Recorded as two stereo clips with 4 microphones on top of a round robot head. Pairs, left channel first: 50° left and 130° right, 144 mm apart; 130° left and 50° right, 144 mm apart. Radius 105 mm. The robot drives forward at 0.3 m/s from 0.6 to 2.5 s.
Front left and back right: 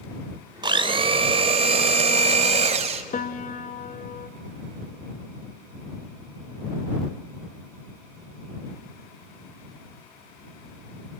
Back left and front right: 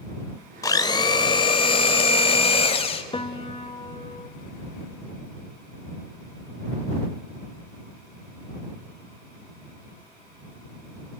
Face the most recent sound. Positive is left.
turn(degrees=80)